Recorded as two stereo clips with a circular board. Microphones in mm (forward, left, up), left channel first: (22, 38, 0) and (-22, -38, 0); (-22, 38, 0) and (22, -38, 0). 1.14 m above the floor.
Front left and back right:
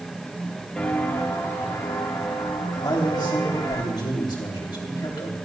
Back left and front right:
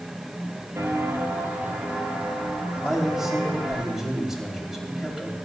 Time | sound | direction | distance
0.8 | footsteps | 15° right | 1.7 m
2.8 | a man speaking | 25° left | 3.5 m